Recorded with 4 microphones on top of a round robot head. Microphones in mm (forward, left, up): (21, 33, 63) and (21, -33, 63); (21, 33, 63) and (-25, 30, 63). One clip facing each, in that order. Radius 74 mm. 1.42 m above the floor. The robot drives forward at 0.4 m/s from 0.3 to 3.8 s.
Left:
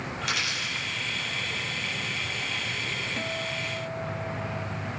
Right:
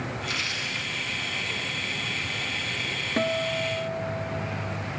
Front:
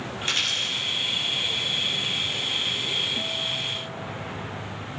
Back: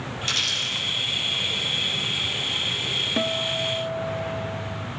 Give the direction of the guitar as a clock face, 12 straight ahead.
5 o'clock.